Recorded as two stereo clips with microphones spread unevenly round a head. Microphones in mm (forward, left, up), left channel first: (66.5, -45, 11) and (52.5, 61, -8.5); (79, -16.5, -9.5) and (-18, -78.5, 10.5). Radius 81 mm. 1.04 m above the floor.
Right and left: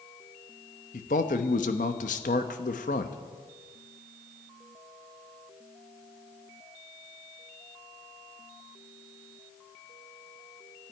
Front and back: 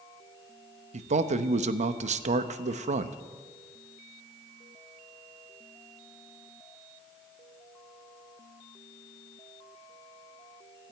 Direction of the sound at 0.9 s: 125° right.